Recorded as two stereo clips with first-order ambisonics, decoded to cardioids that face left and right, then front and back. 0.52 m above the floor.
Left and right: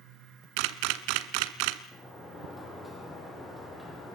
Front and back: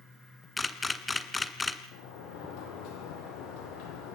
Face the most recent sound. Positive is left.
turn(degrees=0)